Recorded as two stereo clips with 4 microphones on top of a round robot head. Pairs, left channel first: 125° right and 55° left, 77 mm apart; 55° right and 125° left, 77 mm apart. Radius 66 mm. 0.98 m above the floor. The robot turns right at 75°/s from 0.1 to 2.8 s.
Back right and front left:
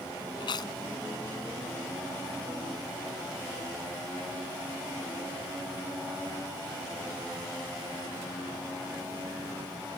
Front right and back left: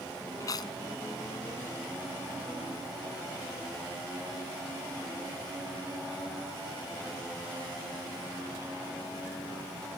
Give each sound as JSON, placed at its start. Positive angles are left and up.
{"t": 0.4, "sound": "chewing", "azimuth_deg": -105}